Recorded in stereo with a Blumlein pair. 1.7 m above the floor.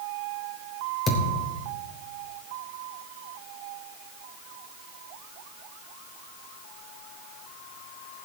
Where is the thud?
20° left, 3.5 m.